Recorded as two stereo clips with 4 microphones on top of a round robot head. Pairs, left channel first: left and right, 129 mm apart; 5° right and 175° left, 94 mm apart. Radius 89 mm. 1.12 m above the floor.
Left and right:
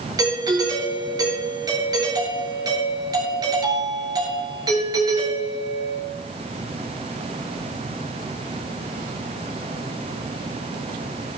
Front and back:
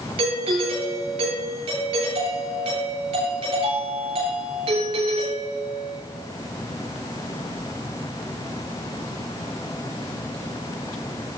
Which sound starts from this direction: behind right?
A doorbell, at 0.2 s.